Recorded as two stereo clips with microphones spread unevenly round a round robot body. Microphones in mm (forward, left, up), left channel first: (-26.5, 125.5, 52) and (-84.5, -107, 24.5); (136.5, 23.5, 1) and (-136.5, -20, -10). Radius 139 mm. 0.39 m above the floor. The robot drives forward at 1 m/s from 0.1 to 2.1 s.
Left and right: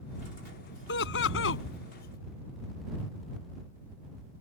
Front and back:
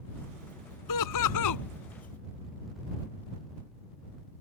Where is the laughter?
25° left; by 1.6 s 30° left.